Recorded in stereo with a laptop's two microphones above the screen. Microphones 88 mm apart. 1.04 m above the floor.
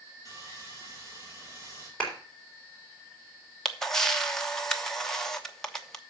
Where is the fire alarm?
No fire alarm in this recording.